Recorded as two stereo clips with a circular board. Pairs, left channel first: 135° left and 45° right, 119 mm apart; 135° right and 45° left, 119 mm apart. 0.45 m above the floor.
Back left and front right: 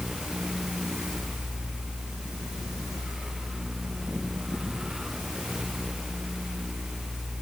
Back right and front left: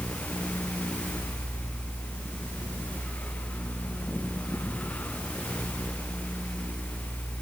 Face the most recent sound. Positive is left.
No sound to turn to.